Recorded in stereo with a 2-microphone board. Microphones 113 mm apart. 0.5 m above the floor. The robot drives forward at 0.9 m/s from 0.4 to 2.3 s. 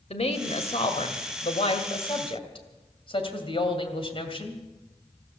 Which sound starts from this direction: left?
A woman speaking, at 0.1 s.